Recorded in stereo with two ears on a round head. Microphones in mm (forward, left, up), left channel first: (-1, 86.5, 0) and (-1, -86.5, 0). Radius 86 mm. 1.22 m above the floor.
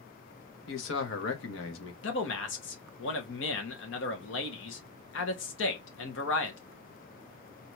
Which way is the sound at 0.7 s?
70° left (ahead or behind).